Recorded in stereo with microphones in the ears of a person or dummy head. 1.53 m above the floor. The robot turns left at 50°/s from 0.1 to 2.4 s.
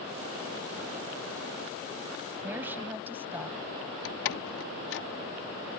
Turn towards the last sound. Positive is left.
turn(degrees=70)  # may be behind; listen again after turning